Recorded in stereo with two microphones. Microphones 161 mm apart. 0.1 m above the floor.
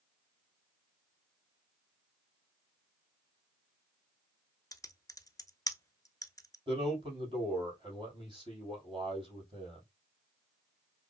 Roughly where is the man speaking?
Right.